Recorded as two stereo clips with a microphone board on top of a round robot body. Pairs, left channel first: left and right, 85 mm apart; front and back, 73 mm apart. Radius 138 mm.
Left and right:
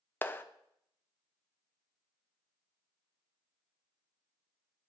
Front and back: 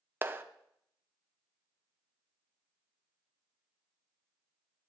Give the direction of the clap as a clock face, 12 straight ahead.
7 o'clock.